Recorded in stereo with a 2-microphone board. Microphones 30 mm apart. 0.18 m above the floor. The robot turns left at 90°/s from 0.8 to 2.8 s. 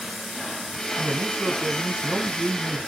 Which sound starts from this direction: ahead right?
A man speaking, at 1.0 s.